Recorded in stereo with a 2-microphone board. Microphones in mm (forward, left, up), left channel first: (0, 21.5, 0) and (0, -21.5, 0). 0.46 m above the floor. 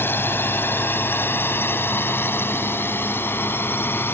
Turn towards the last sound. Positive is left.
turn(degrees=60)  # may be behind; listen again after turning